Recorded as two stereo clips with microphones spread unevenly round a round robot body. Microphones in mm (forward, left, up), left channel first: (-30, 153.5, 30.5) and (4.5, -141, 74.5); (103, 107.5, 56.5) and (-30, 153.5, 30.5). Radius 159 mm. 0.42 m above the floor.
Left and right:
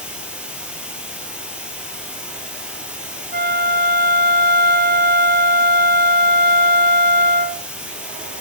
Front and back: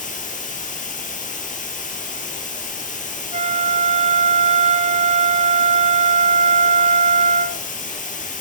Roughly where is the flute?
Behind right.